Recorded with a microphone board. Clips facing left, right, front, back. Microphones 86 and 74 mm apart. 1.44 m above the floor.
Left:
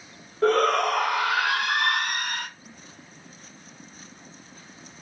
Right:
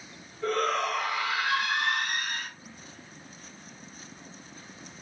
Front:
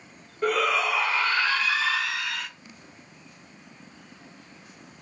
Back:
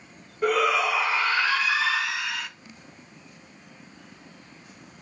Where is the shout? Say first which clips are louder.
Left 7 dB, back 2 dB; 95° left, 0.8 m.